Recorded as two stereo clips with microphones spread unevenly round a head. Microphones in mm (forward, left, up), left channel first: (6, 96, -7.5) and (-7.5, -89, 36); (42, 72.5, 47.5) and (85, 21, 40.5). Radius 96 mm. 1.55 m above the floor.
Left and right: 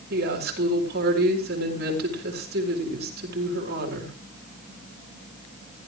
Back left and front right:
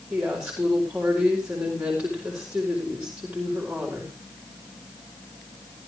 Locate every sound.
0.1 s a woman speaking: 130° right, 4 m